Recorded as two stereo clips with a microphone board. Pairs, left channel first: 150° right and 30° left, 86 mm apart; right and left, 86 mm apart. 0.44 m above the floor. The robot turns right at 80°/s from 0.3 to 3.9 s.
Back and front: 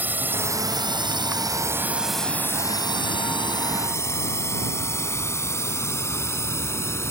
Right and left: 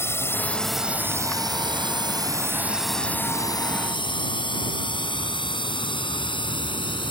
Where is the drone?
35° right; by 7.1 s 95° right.